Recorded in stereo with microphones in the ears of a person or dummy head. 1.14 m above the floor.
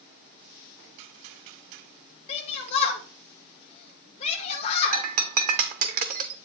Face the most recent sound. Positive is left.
turn(degrees=-40)  # may be behind; listen again after turning